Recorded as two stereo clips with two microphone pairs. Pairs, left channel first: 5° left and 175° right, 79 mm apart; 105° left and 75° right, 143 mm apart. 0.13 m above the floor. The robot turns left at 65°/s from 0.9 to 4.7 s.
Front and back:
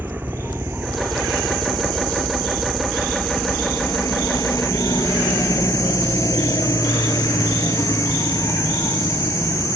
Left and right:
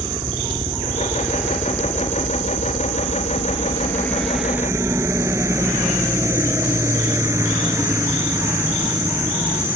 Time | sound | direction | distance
0.0 | a helicopter | 125° right | ?